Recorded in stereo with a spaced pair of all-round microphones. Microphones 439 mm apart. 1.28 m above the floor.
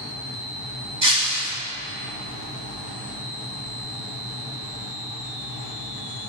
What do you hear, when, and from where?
1.0 s breaking glass: 75° right (ahead or behind), 3.5 m